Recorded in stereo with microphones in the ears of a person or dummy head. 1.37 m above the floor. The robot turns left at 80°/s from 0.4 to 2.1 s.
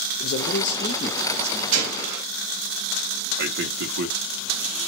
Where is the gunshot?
95° right, 1.1 m; by 2.2 s 125° right, 1.1 m.